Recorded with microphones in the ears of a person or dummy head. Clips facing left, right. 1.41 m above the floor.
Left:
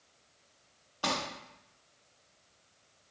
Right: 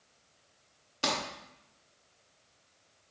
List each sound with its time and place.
1.0 s crumpling: 25° right (ahead or behind), 0.8 m